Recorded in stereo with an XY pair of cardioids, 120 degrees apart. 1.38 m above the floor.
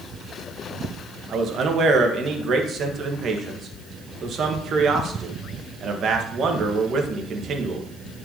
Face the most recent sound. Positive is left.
turn(degrees=-50)